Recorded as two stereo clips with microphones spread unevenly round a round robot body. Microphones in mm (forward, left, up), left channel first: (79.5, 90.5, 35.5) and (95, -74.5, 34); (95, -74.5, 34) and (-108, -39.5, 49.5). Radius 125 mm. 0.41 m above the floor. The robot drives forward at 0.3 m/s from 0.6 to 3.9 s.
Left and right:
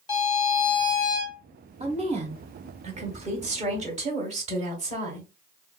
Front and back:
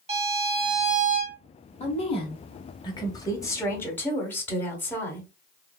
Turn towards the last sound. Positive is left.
turn(degrees=-80)